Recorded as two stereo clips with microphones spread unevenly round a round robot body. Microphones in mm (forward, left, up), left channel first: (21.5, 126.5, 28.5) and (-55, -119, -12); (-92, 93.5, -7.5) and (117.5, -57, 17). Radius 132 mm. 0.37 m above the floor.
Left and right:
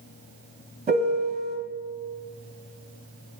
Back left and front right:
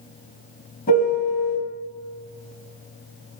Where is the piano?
165° right, 2.5 m.